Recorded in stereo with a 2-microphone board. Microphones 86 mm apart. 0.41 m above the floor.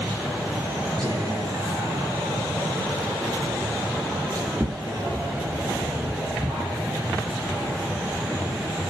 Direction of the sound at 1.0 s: 40° right (ahead or behind).